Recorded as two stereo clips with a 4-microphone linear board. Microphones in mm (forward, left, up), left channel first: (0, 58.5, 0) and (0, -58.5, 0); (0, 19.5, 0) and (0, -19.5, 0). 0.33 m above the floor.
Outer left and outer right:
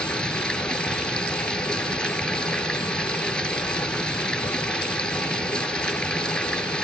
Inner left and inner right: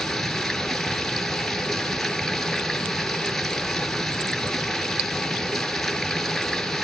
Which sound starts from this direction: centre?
Running water, at 0.0 s.